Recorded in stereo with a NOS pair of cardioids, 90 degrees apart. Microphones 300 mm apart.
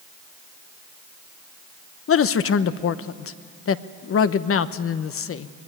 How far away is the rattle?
I don't hear a rattle.